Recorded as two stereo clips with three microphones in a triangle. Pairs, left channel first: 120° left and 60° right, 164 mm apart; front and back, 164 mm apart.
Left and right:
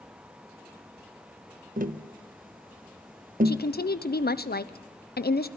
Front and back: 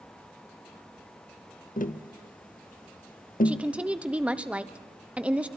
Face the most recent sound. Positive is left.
turn(degrees=100)